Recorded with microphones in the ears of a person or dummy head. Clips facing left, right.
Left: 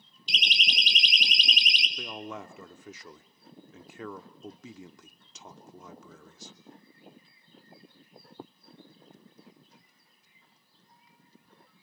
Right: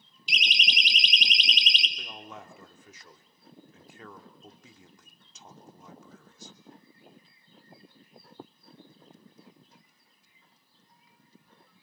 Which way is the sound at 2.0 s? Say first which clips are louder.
Left 6 dB; 50° left (ahead or behind).